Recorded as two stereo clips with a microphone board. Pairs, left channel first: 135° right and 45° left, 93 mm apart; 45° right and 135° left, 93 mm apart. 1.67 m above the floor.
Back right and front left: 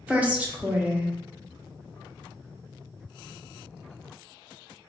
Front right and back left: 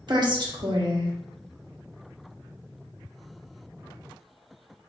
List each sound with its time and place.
0.1 s a woman speaking: 115° left, 0.7 m